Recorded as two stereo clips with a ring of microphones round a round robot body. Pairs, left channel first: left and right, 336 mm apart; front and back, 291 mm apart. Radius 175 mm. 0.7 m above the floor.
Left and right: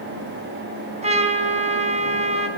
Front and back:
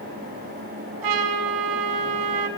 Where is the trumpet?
160° right, 4 m.